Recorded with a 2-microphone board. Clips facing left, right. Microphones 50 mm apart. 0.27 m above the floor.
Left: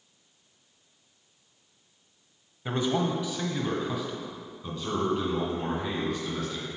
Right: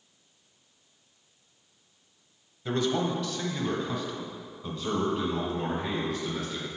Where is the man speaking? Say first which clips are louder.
Even; 20° left (ahead or behind), 1.0 m; by 6.7 s 10° right (ahead or behind), 3 m.